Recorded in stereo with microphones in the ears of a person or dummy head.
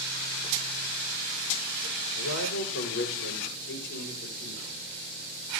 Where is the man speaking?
85° left, 4 m; by 4.9 s 65° left (ahead or behind), 6 m.